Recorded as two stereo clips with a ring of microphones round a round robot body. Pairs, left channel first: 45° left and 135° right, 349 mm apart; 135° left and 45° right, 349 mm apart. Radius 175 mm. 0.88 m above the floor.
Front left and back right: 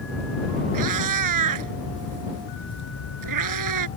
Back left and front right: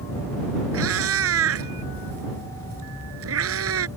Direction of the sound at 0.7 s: 100° right.